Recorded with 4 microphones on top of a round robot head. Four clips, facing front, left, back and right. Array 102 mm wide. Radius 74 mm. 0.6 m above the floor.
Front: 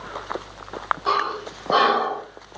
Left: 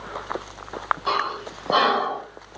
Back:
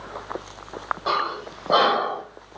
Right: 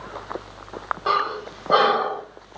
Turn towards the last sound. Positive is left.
turn(degrees=-110)